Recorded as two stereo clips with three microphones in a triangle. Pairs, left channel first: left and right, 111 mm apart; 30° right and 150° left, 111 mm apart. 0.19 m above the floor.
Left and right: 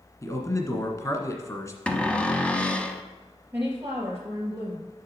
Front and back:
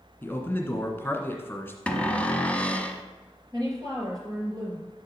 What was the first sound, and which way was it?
A man speaking, 40° left.